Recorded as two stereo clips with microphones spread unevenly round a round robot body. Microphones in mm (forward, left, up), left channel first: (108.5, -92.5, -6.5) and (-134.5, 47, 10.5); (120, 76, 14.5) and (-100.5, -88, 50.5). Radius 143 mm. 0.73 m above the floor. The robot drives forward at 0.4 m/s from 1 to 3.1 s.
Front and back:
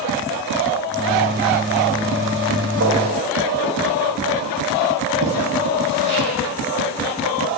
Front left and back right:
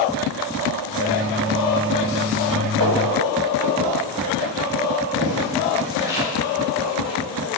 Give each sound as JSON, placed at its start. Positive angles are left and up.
{"t": 2.8, "sound": "footsteps", "azimuth_deg": -165, "distance_m": 3.0}